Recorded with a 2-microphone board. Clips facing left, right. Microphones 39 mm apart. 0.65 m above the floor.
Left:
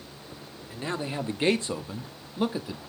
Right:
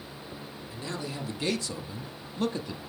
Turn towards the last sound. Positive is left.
turn(degrees=5)  # may be behind; listen again after turning